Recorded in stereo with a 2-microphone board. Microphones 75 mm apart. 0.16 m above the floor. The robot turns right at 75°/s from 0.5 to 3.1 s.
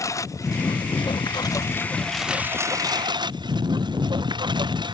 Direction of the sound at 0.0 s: 45° left (ahead or behind).